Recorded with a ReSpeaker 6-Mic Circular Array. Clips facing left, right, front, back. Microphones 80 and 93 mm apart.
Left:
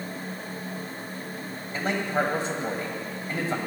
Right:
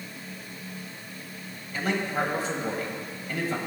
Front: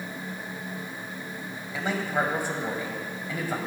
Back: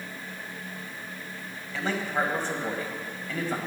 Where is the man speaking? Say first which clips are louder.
Left 1 dB, front 1 dB; 65° left, 1.5 m.